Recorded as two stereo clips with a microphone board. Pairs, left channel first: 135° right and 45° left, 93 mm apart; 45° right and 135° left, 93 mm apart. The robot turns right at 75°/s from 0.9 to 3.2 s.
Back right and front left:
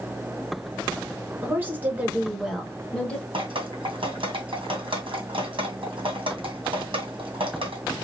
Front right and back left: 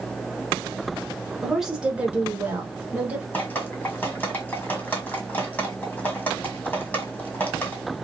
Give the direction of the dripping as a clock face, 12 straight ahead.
11 o'clock.